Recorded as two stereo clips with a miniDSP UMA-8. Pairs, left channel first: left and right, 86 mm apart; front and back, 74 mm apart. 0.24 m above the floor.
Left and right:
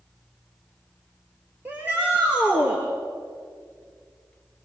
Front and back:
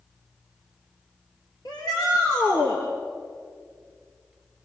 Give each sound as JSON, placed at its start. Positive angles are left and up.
{"t": 1.6, "sound": "a shout", "azimuth_deg": -25, "distance_m": 4.5}